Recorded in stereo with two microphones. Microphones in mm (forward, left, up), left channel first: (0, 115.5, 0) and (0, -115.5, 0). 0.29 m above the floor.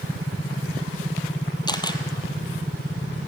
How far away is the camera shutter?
About 1.8 m.